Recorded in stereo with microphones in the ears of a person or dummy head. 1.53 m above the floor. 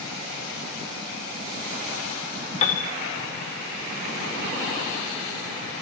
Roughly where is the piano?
Left.